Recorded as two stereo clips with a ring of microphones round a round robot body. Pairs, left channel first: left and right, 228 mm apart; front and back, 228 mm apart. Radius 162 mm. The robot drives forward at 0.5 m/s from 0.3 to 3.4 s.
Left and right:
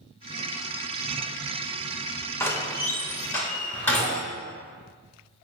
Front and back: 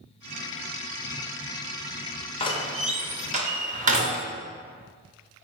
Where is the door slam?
25° left, 0.5 m; by 4.2 s 165° left, 0.6 m.